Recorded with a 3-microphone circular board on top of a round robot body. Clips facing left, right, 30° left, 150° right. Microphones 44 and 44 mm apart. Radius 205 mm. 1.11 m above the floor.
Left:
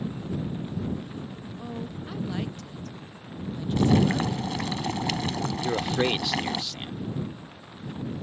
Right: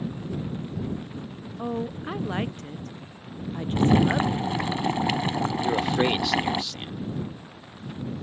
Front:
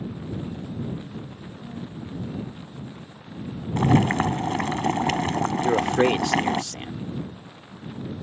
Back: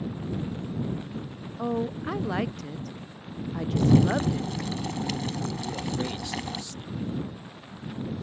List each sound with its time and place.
1.6 s a woman speaking: 145° right
3.8 s boiling: 15° right
5.6 s a man speaking: straight ahead